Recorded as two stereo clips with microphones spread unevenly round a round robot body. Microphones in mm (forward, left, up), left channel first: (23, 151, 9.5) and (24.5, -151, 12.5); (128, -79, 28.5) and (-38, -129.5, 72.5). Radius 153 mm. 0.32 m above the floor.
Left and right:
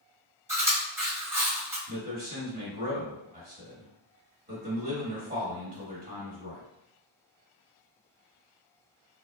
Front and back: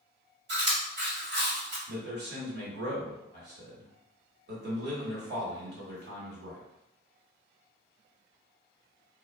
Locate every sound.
0.5 s chewing: 170° right, 1.9 m
1.9 s a man speaking: 145° right, 1.4 m